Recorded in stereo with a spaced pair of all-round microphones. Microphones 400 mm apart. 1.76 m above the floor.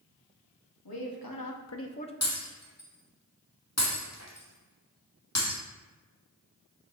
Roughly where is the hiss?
No hiss in this recording.